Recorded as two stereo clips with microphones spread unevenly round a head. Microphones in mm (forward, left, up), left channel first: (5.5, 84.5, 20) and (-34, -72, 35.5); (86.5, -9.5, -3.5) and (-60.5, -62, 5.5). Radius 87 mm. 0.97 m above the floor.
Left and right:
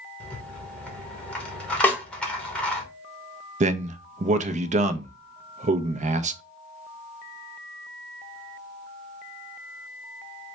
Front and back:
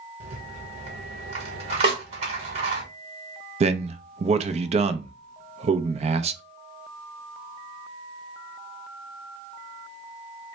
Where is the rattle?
155° left, 1.1 m.